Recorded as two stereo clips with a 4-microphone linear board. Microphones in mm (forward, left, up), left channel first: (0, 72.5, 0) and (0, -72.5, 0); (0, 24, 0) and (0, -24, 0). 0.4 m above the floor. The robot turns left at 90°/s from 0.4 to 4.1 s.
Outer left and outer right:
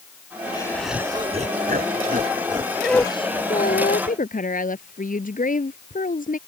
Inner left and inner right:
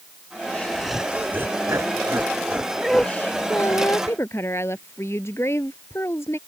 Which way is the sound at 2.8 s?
175° right.